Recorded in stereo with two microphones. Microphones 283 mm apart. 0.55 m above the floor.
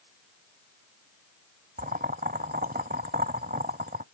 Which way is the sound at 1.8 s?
35° right (ahead or behind).